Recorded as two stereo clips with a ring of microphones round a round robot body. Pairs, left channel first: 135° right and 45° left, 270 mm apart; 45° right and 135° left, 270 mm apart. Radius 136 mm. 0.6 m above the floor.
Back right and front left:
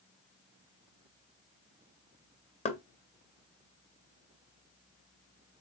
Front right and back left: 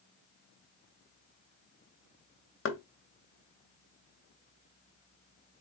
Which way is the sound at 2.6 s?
75° right.